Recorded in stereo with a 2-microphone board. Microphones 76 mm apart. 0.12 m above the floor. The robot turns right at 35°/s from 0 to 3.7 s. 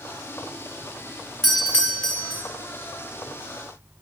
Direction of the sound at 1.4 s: 5° left (ahead or behind).